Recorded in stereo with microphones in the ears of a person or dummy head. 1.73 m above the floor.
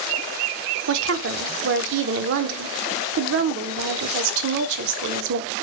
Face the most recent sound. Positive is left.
turn(degrees=-65)  # may be behind; listen again after turning